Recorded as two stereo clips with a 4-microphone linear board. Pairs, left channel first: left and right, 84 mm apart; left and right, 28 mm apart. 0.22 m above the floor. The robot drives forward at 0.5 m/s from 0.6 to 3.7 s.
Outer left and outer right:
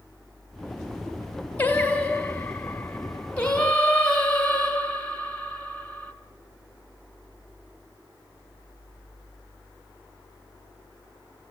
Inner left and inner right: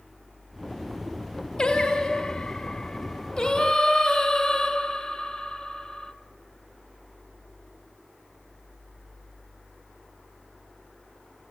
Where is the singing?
20° left (ahead or behind), 1.2 m; by 6.1 s 10° left (ahead or behind), 1.9 m.